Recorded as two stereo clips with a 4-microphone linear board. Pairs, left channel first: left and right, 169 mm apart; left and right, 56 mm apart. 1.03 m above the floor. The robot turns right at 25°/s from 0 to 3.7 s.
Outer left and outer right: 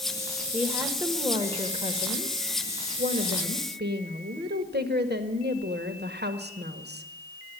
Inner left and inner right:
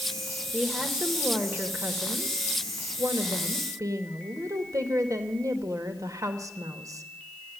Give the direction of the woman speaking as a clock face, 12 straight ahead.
6 o'clock.